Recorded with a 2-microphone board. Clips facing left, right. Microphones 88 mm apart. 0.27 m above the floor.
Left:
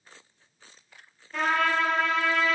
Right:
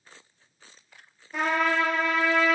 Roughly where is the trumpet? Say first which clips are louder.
Even; centre.